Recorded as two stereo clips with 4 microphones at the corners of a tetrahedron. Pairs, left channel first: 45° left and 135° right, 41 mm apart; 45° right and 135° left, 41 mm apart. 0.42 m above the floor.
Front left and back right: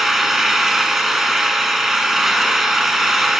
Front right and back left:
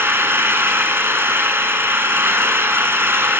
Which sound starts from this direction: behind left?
An engine running, at 0.0 s.